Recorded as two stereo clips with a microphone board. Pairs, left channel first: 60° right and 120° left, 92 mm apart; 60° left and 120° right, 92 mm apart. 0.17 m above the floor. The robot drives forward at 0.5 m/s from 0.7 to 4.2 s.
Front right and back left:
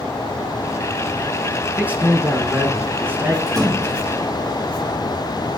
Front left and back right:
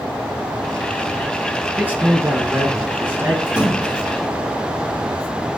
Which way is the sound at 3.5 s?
165° left.